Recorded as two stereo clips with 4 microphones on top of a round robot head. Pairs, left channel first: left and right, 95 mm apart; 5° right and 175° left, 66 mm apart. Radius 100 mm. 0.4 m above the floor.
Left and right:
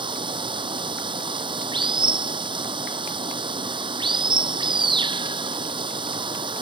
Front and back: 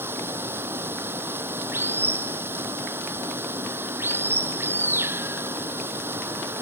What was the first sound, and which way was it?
Running water, 125° right.